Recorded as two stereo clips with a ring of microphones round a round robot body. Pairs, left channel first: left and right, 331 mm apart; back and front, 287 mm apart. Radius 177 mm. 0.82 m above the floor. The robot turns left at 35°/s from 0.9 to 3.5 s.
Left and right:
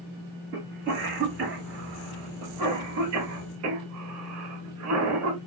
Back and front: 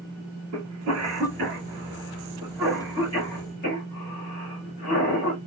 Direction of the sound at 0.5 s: 30° right.